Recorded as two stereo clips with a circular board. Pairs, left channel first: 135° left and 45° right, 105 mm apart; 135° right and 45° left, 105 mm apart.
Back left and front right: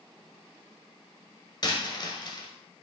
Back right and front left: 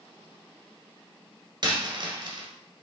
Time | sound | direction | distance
1.6 | a dropped coin | 90° left | 1.4 m